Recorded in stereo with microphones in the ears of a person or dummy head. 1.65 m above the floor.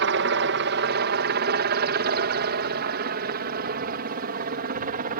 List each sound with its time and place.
0.0 s a helicopter: 60° right (ahead or behind); by 5.2 s 45° right (ahead or behind)